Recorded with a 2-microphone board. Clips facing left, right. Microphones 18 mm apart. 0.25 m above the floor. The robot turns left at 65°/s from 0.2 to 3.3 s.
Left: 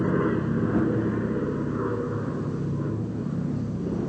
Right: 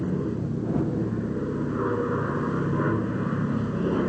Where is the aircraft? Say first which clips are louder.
Left 4 dB; 95° left; by 4.1 s 110° right.